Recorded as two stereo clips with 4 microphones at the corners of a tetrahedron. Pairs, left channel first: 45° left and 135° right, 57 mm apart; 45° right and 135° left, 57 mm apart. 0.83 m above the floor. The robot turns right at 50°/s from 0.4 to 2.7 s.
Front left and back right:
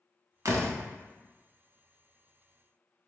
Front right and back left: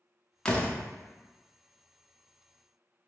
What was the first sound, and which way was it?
A door slam, 120° right.